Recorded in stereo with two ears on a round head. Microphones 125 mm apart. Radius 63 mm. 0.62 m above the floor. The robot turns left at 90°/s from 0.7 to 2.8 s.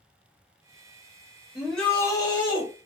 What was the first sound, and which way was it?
A shout, 170° right.